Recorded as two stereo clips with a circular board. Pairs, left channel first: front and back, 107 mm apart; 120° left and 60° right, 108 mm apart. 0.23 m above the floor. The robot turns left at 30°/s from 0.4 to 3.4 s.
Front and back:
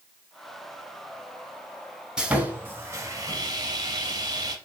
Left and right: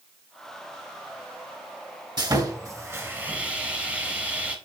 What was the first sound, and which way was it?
Sawing, 100° right.